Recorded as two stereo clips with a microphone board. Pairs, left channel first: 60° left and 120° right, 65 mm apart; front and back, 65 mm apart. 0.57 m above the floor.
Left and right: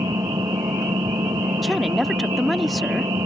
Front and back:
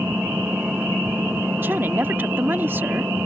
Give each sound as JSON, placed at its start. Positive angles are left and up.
{"t": 0.0, "sound": "an engine running", "azimuth_deg": -110}
{"t": 1.6, "sound": "a woman speaking", "azimuth_deg": 150}